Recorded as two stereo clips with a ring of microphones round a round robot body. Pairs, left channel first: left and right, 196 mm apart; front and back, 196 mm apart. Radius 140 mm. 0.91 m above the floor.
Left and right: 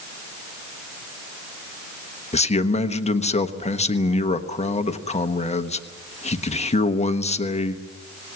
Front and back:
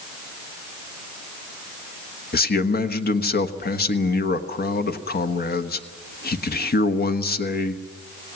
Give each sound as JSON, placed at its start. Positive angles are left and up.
{"t": 2.3, "sound": "a man speaking", "azimuth_deg": 35, "distance_m": 1.3}